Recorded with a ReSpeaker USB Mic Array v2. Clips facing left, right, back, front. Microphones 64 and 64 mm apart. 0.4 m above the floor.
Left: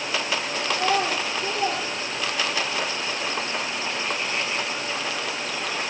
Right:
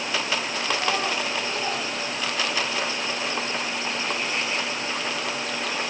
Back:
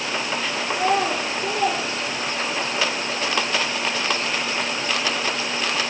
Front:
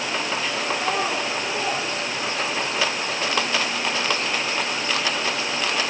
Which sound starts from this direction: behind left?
A child speaking, at 0.7 s.